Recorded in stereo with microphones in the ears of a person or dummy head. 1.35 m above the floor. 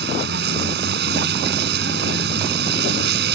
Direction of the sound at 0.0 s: 70° right (ahead or behind).